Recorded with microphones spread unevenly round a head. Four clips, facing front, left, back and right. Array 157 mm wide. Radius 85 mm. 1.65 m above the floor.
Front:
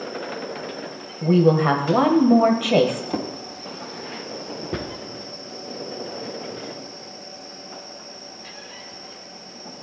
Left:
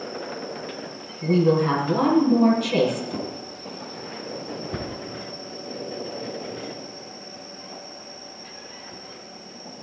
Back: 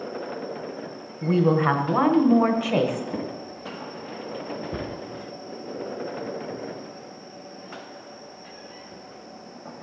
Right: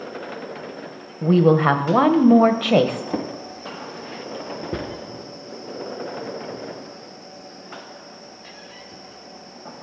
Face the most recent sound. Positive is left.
turn(degrees=-40)